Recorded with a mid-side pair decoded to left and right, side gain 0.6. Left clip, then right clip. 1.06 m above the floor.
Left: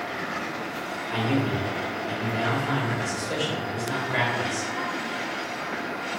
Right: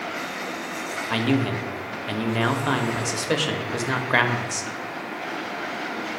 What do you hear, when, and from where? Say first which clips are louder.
1.1 s a man speaking: right 2 dB; 60° right, 0.7 m